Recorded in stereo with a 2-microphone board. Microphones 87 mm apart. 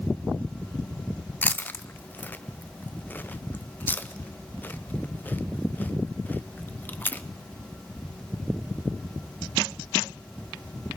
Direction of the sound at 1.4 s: 20° left (ahead or behind).